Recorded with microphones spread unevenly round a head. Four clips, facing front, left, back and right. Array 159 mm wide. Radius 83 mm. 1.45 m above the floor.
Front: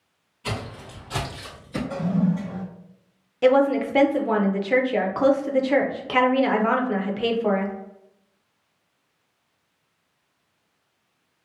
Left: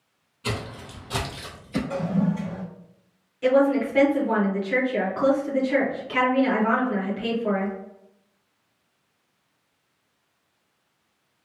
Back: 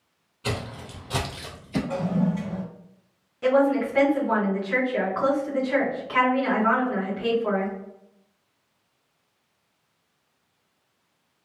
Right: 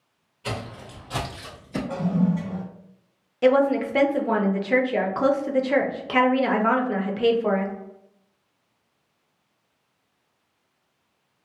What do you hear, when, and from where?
0.4 s footsteps: 155° left, 1.7 m; by 1.8 s 135° left, 1.4 m
1.9 s a toilet flushing: 140° right, 1.4 m
3.4 s a woman speaking: 40° right, 0.6 m